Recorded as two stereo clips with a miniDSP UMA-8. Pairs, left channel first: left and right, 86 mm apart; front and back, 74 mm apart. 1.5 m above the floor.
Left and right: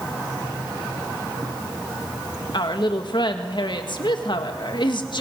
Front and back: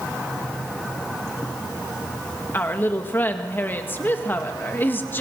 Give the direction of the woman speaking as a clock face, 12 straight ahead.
10 o'clock.